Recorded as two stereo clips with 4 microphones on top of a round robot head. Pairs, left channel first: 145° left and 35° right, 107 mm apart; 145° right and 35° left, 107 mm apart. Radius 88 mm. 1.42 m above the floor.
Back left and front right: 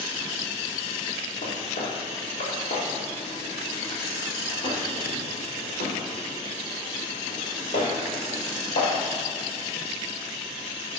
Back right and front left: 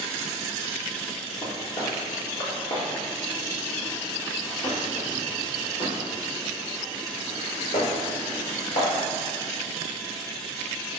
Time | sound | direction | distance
1.4 | footsteps | 160° left | 4 m